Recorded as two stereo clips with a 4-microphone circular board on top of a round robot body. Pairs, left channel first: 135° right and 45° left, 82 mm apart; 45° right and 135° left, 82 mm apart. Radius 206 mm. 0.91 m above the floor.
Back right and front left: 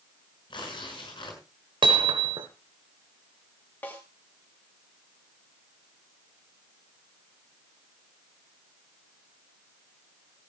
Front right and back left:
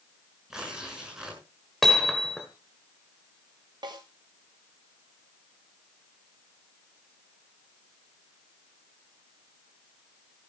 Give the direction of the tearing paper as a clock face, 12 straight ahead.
5 o'clock.